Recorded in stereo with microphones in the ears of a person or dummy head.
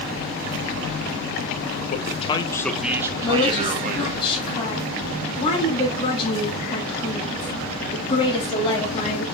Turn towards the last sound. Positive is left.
turn(degrees=25)  # may be behind; listen again after turning